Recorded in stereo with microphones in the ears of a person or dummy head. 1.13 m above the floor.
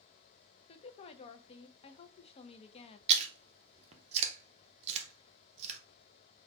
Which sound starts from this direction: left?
A woman speaking, at 0.7 s.